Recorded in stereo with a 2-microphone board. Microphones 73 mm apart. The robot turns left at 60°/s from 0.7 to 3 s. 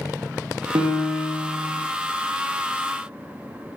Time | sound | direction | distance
0.8 | a piano | 75° right | 1.7 m